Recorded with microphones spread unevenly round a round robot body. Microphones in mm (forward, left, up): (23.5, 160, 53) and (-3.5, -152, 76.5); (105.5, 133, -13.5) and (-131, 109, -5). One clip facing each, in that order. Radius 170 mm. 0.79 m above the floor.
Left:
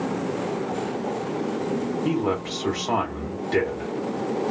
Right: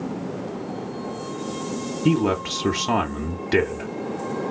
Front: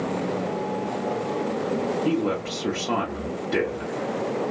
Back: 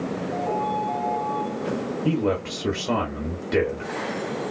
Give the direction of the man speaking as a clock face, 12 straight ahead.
4 o'clock.